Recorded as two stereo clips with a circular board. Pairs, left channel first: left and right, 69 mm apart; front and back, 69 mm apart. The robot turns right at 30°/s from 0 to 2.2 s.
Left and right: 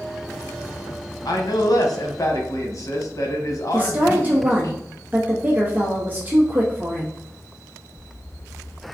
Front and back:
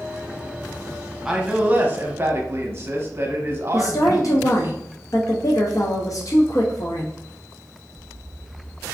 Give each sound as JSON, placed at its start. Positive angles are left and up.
{"t": 1.2, "sound": "a man speaking", "azimuth_deg": 95, "distance_m": 0.7}
{"t": 3.7, "sound": "a woman speaking", "azimuth_deg": -30, "distance_m": 0.5}